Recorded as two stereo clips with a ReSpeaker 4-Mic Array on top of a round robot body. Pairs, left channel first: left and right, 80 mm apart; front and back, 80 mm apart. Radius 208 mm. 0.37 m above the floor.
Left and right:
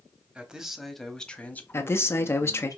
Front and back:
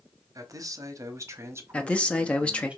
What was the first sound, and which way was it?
A man speaking, 165° right.